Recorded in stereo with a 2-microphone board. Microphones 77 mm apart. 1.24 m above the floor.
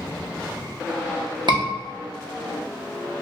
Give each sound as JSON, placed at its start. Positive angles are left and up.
{"t": 1.5, "sound": "a scream", "side_deg": -70, "distance_m": 1.0}